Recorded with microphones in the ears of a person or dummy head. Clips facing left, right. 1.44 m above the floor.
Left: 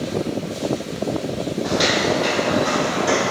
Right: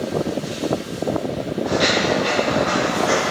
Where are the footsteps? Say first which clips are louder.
Right 1 dB; 30° left (ahead or behind), 2 m; by 3.3 s 10° left (ahead or behind), 2.5 m.